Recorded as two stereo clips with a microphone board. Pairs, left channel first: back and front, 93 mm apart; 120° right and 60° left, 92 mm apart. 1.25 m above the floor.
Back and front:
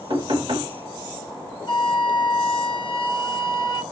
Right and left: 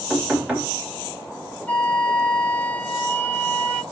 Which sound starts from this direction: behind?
A flute, at 1.7 s.